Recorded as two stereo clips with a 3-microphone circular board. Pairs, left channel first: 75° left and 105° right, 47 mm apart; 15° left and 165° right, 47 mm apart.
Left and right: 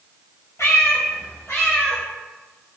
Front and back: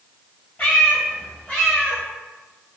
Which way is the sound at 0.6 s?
70° left.